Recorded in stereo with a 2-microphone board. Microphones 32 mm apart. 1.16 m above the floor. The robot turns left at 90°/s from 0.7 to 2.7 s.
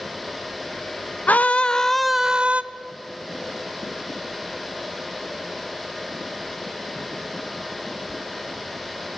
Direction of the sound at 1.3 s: 70° left.